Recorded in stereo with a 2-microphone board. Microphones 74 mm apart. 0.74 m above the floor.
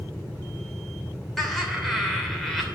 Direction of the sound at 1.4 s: Centre (ahead or behind).